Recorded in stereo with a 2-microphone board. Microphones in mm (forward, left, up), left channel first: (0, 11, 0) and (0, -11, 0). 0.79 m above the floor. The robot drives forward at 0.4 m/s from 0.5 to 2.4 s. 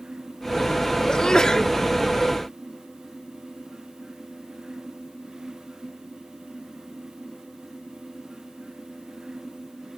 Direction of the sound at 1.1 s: 40° left (ahead or behind).